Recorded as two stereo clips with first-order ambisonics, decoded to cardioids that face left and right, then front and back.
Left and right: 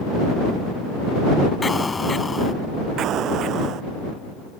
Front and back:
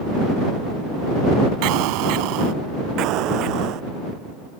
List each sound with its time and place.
1.6 s an explosion: 170° left
3.0 s an explosion: 140° right